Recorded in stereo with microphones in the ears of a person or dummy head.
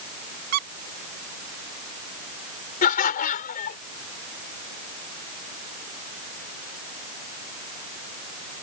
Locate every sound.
0.5 s a squeak: 55° right (ahead or behind)
2.8 s laughter: 55° left (ahead or behind)